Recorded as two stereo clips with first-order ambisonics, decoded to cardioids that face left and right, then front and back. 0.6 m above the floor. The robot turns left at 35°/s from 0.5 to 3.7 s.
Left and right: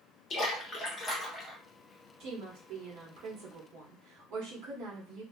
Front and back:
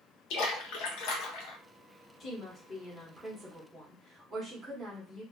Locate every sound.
0.3 s a splash: 30° left, 0.7 m; by 1.6 s 10° right, 0.7 m
2.2 s a woman speaking: 60° right, 1.3 m; by 5.2 s 115° right, 1.3 m